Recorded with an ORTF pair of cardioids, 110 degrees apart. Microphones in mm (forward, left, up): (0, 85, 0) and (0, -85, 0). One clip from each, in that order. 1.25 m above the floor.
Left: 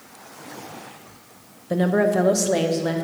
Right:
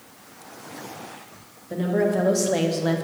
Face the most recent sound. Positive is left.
turn(degrees=-10)